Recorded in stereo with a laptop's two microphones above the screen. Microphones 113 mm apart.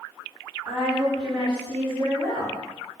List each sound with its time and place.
0.7 s a woman speaking: 40° right (ahead or behind), 1.9 m